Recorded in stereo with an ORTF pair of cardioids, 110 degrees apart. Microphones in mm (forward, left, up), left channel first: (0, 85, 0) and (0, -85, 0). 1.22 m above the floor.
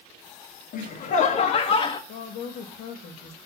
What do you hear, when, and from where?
0.7 s laughter: 65° left, 1.8 m; by 2.0 s 30° left, 1.4 m
2.1 s a woman speaking: 70° left, 2.5 m